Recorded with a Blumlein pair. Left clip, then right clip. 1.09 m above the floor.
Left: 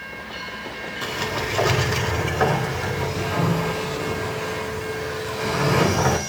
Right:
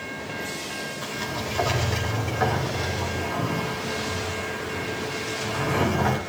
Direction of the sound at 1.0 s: 20° left.